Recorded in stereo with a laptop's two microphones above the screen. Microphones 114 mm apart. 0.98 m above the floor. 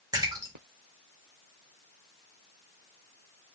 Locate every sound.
0.1 s a splash: 35° right (ahead or behind), 1.0 m